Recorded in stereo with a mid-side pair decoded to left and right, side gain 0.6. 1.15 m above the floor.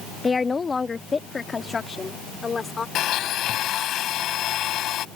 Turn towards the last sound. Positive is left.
turn(degrees=55)